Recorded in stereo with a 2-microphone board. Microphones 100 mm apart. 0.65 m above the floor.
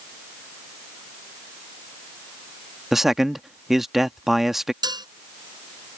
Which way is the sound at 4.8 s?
45° right (ahead or behind).